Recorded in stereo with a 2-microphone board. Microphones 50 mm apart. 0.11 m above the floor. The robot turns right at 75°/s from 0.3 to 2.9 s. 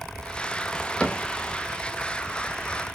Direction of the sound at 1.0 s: 20° left (ahead or behind).